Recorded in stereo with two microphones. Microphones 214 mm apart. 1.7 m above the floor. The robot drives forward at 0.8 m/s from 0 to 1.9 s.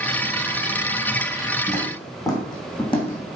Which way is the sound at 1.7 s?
5° left (ahead or behind).